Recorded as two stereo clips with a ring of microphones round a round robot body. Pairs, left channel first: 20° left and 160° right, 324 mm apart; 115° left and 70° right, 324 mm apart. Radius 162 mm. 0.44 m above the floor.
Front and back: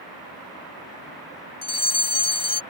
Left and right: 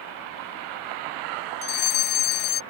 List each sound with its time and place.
1.6 s a fire alarm: 100° left